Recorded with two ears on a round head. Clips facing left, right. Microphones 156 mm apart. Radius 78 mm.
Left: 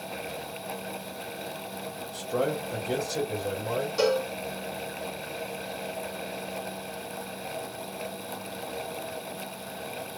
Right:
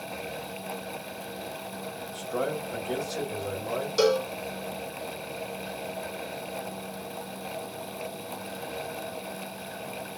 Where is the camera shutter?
No camera shutter in this recording.